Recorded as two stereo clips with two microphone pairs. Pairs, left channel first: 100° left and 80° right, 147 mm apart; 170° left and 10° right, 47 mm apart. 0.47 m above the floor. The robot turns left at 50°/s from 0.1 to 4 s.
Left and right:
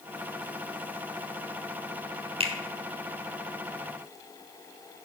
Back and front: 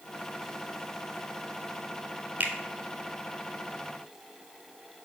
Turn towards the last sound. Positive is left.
turn(degrees=-120)